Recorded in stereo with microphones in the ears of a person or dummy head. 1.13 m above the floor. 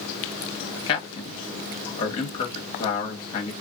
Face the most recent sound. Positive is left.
turn(degrees=30)  # may be behind; listen again after turning